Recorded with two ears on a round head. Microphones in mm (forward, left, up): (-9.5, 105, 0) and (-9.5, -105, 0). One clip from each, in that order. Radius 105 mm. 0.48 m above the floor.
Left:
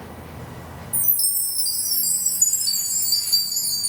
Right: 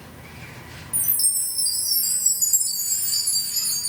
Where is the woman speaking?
I don't hear a woman speaking.